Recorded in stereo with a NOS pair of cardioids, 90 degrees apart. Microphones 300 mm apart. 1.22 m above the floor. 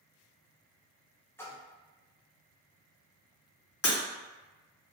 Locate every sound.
1.4 s a splash: 10° left, 0.5 m
3.8 s breaking glass: 55° left, 0.9 m